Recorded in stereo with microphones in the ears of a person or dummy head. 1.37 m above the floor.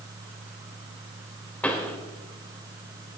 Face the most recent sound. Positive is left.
turn(degrees=10)  # may be behind; listen again after turning